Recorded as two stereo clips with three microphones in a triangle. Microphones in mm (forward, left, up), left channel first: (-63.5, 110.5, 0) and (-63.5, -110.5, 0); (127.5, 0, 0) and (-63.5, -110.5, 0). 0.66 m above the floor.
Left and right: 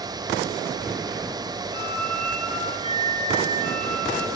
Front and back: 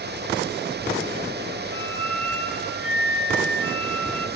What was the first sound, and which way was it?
A flute, 150° right.